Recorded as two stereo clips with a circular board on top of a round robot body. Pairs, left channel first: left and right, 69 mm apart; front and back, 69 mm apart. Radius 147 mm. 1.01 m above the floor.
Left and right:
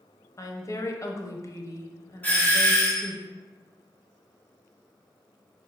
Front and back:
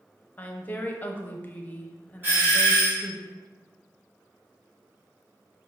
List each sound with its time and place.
0.4 s a woman speaking: 60° left, 0.8 m
2.2 s a doorbell: 140° left, 1.6 m